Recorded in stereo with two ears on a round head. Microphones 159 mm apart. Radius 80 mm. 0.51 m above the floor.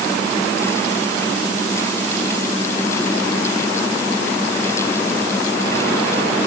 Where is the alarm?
No alarm in this recording.